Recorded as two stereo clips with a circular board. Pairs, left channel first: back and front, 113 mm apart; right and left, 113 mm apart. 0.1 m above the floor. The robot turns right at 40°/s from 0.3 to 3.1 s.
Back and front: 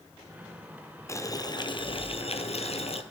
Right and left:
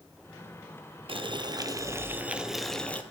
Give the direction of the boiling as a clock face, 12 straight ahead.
8 o'clock.